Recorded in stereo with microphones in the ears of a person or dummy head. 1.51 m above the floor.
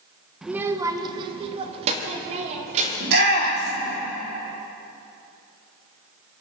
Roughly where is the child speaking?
Centre.